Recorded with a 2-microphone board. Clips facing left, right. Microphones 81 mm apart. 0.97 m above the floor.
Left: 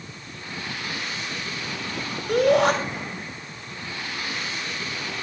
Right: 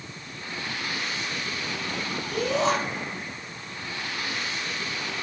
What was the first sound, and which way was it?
A shout, 60° left (ahead or behind).